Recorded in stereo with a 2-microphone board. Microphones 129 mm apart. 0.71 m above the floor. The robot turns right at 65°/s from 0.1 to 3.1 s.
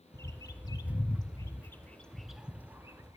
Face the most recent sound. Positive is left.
turn(degrees=-25)  # may be behind; listen again after turning